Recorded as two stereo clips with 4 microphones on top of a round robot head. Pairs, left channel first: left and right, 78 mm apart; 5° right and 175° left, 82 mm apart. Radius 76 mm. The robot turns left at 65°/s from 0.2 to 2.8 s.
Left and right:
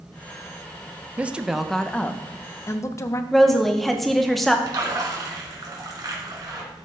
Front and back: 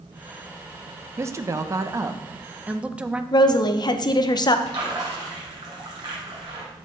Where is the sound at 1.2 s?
150° right, 0.7 m; by 3.2 s 105° left, 0.7 m.